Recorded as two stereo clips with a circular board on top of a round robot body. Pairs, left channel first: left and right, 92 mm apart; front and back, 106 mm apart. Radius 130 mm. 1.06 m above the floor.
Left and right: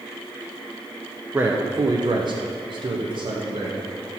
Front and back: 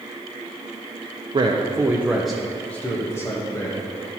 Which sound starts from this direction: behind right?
A man speaking, at 1.3 s.